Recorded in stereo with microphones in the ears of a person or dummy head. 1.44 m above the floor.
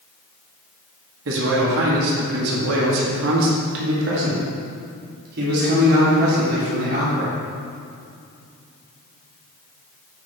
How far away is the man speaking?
About 1.9 m.